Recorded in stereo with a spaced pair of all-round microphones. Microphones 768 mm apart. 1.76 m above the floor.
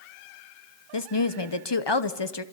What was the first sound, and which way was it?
A woman speaking, 35° left (ahead or behind).